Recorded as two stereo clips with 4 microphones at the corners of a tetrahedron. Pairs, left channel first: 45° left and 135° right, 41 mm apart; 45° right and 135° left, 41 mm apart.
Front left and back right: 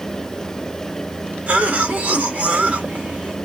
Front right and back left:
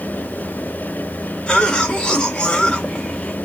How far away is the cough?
About 1.1 m.